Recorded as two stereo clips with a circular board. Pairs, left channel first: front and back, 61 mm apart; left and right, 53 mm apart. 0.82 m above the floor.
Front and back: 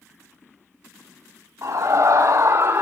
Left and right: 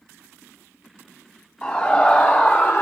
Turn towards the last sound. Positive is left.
turn(degrees=130)